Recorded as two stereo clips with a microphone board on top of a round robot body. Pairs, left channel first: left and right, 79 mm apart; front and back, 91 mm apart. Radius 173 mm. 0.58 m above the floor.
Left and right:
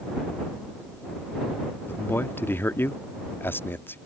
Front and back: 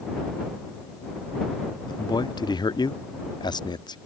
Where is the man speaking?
30° left.